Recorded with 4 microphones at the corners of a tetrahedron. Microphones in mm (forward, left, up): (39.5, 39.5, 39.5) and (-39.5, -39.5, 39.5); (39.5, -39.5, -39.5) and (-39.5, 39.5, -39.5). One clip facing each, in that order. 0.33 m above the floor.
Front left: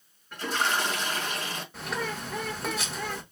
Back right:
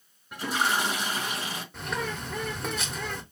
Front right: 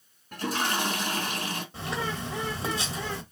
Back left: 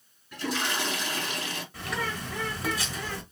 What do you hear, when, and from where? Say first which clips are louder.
0.3 s a toilet flushing: back right 1 dB, front right 2 dB; 60° right, 2.5 m
1.7 s a bird: even, even; 45° right, 1.6 m